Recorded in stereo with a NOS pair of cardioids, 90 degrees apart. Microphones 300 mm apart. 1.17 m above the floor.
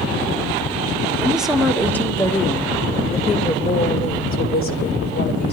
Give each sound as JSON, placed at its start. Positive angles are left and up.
{"t": 1.2, "sound": "a woman speaking", "azimuth_deg": -5, "distance_m": 2.5}